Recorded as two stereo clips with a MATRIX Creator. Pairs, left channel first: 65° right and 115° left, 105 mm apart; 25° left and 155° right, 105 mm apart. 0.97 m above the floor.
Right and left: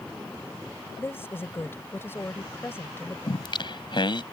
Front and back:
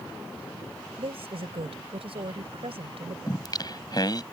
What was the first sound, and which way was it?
A woman speaking, 135° right.